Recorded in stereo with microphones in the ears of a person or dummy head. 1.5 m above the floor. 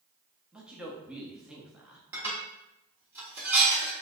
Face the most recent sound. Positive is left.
turn(degrees=-15)  # may be behind; listen again after turning